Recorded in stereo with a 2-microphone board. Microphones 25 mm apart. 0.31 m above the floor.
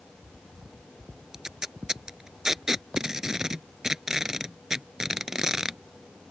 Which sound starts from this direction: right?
Tape being pulled, at 1.3 s.